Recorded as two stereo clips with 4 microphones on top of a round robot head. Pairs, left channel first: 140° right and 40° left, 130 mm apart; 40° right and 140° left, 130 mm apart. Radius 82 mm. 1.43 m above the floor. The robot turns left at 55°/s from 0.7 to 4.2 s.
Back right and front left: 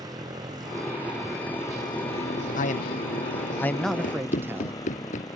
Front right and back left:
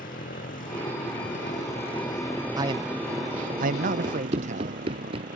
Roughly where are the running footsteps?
Behind.